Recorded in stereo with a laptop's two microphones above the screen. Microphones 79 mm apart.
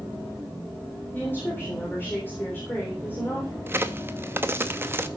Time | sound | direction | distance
1.1 | a woman speaking | 25° left (ahead or behind) | 3.5 m
3.7 | a crack | 30° right (ahead or behind) | 0.8 m